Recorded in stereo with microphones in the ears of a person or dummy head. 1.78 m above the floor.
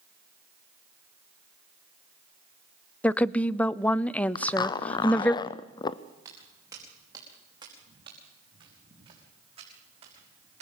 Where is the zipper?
25° left (ahead or behind), 0.6 m.